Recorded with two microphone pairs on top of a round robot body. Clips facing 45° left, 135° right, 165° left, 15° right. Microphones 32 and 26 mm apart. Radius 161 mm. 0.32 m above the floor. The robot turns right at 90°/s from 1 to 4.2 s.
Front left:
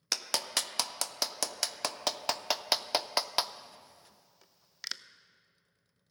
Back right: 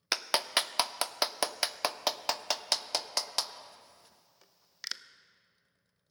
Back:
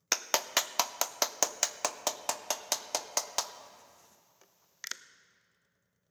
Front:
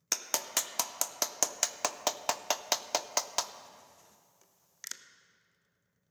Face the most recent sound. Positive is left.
turn(degrees=130)